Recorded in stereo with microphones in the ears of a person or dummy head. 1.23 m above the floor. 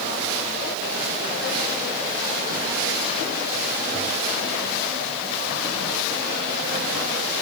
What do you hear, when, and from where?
Only background noise.